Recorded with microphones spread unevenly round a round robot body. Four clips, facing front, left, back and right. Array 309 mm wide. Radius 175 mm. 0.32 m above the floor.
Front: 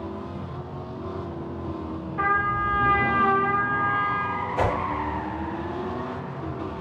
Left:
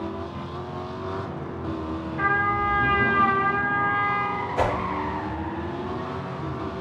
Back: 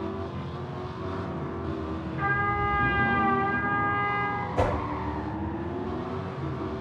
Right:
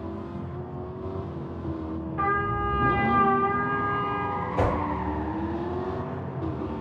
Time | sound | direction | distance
2.2 | a trumpet | 65° right | 1.8 m
4.6 | a whoosh | 175° right | 2 m